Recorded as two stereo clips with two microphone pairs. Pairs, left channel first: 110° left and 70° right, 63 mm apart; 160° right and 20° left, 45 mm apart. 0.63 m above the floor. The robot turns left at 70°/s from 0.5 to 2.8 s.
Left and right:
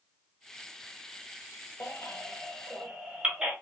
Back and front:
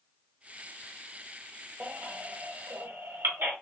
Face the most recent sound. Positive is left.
turn(degrees=5)